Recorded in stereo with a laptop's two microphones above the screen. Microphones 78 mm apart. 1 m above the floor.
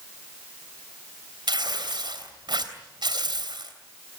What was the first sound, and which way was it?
Tearing paper, 85° right.